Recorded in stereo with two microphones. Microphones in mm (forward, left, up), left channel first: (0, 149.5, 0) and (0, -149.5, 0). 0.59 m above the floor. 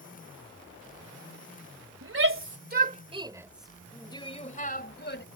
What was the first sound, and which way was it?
A shout, 50° right (ahead or behind).